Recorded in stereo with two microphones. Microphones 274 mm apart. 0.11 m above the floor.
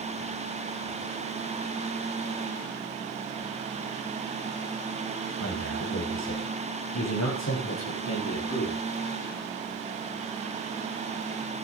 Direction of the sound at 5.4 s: 75° left (ahead or behind).